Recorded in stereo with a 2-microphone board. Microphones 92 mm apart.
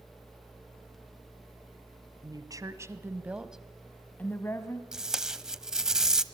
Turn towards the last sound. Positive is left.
turn(degrees=-5)  # may be behind; listen again after turning